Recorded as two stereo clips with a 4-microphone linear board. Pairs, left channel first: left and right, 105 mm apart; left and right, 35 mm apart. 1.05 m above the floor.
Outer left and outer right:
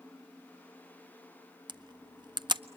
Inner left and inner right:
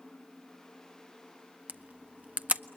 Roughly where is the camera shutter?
Right.